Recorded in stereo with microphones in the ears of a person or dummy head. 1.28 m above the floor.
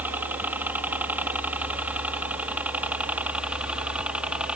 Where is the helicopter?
10° right (ahead or behind); by 4.6 s 5° right (ahead or behind).